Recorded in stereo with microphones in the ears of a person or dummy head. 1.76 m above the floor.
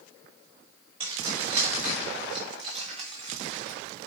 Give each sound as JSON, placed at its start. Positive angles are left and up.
{"t": 1.0, "sound": "keys jangling", "side_deg": -35, "distance_m": 3.5}